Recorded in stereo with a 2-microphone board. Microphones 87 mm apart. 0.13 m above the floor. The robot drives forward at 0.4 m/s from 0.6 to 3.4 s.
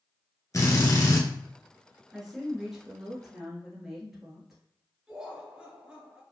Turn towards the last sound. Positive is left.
turn(degrees=-10)  # may be behind; listen again after turning